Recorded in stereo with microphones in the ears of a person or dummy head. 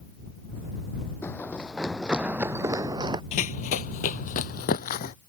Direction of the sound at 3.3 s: 35° left (ahead or behind).